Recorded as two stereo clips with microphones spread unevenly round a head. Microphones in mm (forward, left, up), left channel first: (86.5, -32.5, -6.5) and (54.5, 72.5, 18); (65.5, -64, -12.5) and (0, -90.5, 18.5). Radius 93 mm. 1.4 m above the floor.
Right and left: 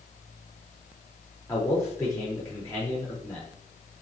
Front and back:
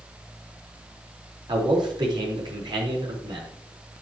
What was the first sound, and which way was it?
A man speaking, 150° right.